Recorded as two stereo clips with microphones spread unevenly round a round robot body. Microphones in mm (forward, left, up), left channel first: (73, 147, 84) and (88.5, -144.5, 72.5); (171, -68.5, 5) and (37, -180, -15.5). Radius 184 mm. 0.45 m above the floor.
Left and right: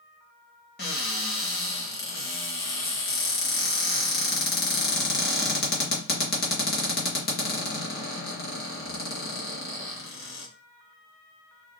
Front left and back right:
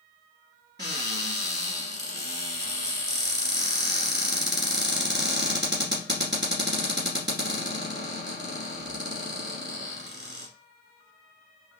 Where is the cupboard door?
155° left, 0.6 m.